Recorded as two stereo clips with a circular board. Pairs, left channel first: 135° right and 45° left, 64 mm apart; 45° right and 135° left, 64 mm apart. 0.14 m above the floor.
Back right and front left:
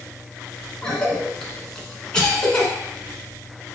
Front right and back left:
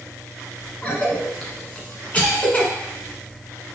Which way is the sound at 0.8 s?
75° right.